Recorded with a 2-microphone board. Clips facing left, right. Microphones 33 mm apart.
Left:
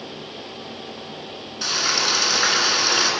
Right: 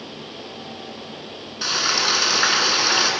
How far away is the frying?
About 1.4 m.